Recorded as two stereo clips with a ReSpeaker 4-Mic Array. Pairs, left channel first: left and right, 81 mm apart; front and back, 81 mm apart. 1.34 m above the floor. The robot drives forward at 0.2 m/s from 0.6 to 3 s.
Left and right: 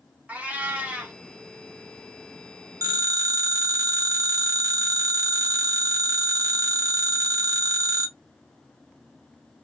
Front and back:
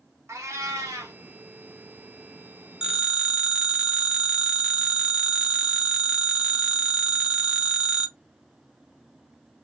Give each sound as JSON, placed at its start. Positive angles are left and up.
{"t": 0.3, "sound": "a cat meowing", "azimuth_deg": -150, "distance_m": 0.7}
{"t": 2.8, "sound": "a phone ringing", "azimuth_deg": -100, "distance_m": 0.7}